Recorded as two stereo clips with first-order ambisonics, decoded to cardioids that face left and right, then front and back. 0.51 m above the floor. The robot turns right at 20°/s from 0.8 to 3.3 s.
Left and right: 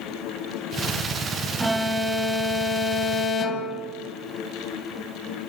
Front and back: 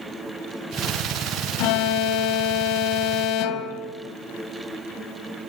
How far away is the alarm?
About 1.8 m.